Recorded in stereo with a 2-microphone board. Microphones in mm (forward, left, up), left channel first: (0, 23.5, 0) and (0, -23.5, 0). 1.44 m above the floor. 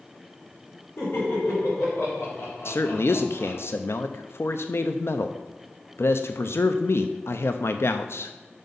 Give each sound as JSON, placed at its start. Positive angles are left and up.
{"t": 1.0, "sound": "laughter", "side_deg": 75, "distance_m": 4.0}
{"t": 2.6, "sound": "a man speaking", "side_deg": 65, "distance_m": 0.5}